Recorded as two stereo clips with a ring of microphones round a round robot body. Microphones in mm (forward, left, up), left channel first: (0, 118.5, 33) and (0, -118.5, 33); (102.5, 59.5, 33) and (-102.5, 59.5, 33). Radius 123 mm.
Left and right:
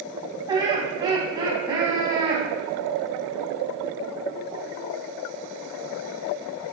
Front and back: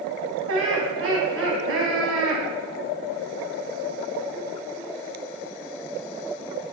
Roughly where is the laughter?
Behind.